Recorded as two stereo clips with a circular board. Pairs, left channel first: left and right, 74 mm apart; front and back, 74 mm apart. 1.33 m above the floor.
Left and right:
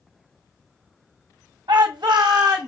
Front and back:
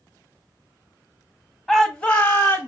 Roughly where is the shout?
Right.